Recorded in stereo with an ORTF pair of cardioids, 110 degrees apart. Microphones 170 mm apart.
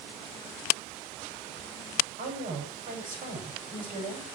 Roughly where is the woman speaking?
Ahead right.